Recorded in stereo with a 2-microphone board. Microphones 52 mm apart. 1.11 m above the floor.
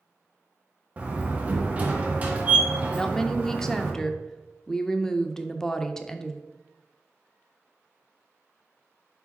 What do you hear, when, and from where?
1.0 s a door slam: 30° right (ahead or behind), 1.1 m
2.9 s a woman speaking: 10° left (ahead or behind), 0.6 m